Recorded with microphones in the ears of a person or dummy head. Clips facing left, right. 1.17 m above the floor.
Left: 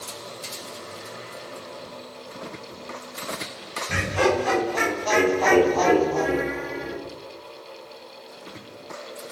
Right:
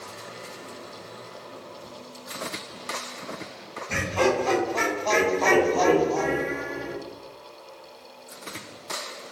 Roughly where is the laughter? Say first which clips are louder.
Left 1 dB; centre.